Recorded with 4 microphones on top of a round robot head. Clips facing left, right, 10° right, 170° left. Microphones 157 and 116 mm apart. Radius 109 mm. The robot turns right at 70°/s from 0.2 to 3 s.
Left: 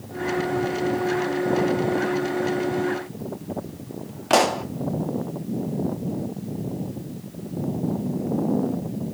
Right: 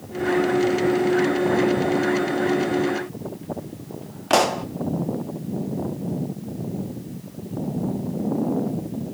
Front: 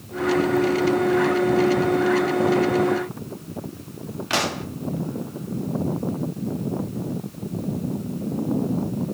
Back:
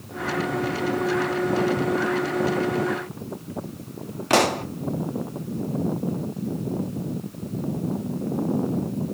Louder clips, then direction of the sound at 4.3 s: Even, back 6 dB; straight behind.